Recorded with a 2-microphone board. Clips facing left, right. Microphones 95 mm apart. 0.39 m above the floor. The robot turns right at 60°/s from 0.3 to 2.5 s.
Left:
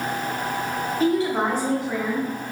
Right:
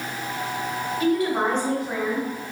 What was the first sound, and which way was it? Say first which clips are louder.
A woman speaking: even; 135° left.